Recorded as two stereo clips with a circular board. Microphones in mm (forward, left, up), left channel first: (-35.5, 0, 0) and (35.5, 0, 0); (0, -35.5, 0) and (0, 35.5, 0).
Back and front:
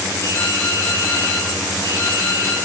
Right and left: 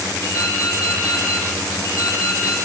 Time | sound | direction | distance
0.2 | dripping | 125° right | 3.5 m